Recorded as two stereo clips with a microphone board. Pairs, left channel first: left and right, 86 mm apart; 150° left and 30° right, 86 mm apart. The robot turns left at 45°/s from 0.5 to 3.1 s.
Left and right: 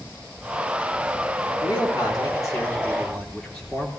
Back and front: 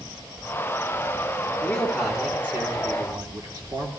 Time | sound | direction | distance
1.6 | a man speaking | 75° left | 3.5 m